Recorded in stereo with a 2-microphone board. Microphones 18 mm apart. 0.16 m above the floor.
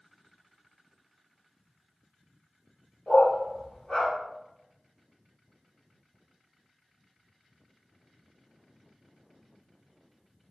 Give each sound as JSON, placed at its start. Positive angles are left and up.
{"t": 3.1, "sound": "a dog barking", "side_deg": 60, "distance_m": 1.7}